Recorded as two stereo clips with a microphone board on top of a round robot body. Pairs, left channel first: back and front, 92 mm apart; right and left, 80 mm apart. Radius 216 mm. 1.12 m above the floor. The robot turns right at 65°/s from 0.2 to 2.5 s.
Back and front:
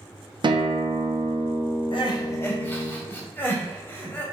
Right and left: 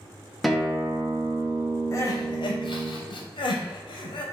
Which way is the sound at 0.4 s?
Straight ahead.